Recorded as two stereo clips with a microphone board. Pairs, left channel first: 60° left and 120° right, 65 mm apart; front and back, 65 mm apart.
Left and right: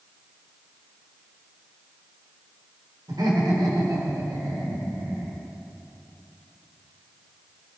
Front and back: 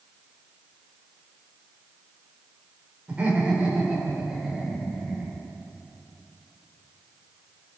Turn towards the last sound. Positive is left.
turn(degrees=-95)